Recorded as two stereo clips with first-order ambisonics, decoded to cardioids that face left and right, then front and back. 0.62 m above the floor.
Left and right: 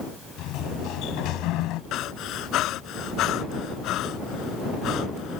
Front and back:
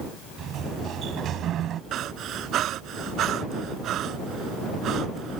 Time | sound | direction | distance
0.4 | a sliding door | 125° left | ?
1.9 | breathing | 130° left | ?